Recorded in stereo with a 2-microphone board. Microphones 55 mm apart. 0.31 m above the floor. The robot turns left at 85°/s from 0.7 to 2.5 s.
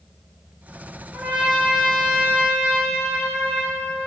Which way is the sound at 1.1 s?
135° right.